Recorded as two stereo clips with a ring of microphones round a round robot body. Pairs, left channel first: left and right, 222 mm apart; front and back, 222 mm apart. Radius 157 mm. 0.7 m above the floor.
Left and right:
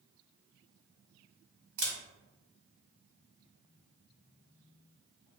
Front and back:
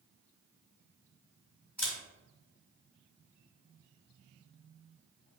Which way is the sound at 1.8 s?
95° right.